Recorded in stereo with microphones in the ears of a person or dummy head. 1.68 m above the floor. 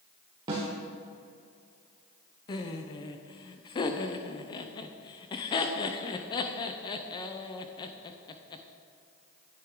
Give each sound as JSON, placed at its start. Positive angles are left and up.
{"t": 0.5, "sound": "a snare drum", "side_deg": -20, "distance_m": 1.4}
{"t": 2.5, "sound": "laughter", "side_deg": 25, "distance_m": 0.6}